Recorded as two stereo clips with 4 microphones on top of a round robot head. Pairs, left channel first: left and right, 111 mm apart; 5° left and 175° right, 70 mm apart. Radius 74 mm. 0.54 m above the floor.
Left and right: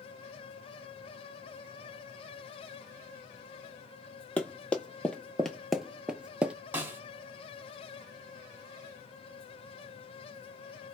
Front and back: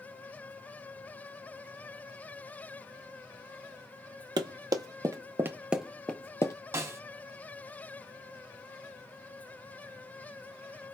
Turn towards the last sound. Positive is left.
turn(degrees=-155)